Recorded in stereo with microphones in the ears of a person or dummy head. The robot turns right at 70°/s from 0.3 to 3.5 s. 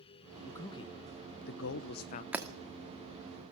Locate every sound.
0.5 s a man speaking: 5° left (ahead or behind), 1.0 m; by 2.2 s 45° left (ahead or behind), 1.0 m
2.3 s breaking glass: 5° right (ahead or behind), 2 m; by 2.5 s 15° right (ahead or behind), 2 m